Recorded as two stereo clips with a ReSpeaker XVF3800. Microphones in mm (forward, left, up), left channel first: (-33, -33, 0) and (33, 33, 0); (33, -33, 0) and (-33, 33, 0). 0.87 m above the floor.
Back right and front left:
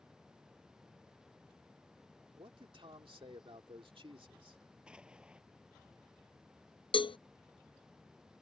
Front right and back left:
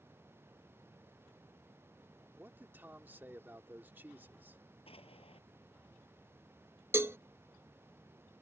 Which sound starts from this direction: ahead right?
An explosion, at 4.9 s.